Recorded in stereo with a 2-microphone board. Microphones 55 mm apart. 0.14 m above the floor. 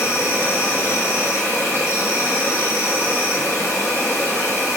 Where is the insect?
50° left (ahead or behind), 1.5 m.